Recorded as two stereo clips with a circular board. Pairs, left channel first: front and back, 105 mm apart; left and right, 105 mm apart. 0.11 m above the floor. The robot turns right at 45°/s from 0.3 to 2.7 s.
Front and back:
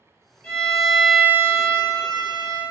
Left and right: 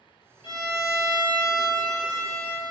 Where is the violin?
70° left, 0.8 m; by 2.6 s 165° left, 0.8 m.